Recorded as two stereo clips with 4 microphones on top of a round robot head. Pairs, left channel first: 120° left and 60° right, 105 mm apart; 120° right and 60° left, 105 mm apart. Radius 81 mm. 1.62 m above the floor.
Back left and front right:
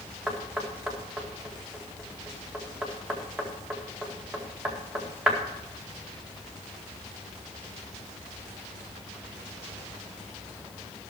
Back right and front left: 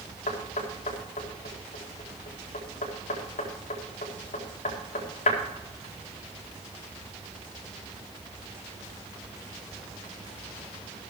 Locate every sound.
0.3 s knocking: 145° right, 2.0 m